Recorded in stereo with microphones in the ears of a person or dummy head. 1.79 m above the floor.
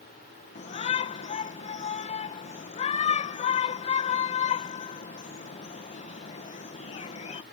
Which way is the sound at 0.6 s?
30° left (ahead or behind).